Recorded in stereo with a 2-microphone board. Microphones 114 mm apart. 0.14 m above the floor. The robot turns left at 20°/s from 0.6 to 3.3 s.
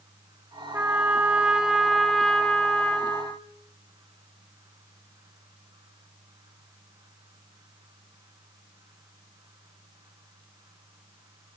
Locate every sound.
0.7 s a trumpet: 155° right, 0.5 m; by 3.5 s 155° left, 0.5 m